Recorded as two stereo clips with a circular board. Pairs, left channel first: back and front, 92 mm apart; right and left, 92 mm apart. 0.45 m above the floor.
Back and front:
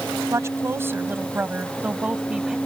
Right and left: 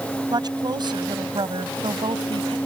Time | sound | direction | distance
0.3 | a woman speaking | 55° left | ?